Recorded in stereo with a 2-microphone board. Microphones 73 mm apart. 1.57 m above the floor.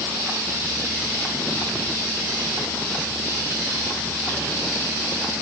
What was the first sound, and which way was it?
Only background noise.